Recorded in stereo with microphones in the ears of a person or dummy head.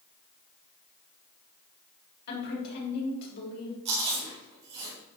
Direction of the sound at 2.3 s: 55° left (ahead or behind).